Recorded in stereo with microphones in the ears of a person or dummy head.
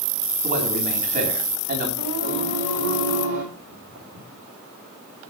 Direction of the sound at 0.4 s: 45° right (ahead or behind).